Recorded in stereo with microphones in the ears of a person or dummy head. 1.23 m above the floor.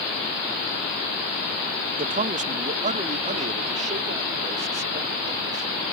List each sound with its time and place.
2.0 s a man speaking: 40° right (ahead or behind); by 5.7 s 35° right (ahead or behind)